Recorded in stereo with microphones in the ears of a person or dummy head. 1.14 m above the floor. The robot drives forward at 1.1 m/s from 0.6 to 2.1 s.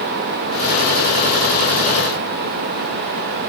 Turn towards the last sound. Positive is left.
No sound to turn to.